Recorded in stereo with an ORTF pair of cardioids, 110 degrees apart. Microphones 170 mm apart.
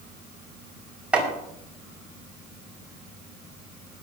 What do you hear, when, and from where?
1.1 s chopping: 5° right, 5.5 m